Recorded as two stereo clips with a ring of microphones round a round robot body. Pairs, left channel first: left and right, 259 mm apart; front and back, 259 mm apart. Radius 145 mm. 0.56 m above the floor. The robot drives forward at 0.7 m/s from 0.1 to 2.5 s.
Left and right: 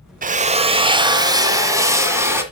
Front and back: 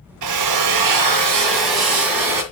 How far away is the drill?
About 0.7 m.